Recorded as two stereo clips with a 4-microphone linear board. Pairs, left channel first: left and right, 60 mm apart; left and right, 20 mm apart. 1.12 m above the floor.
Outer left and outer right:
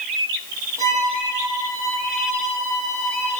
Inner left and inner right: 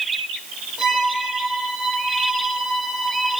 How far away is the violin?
About 6.5 m.